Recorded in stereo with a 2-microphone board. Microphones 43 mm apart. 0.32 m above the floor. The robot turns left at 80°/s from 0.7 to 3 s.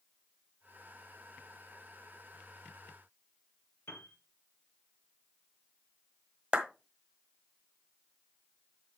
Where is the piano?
70° left (ahead or behind), 2 m.